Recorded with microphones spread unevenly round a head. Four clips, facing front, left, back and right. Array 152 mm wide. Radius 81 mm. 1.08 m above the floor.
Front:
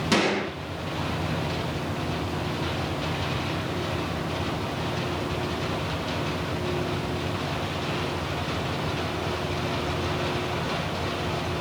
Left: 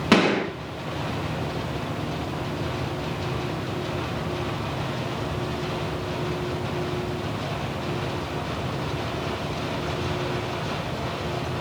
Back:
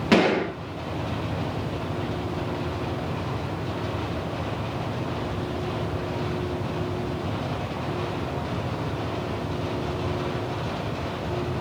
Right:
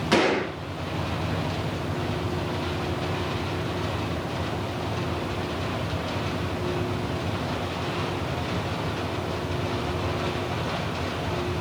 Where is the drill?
I don't hear a drill.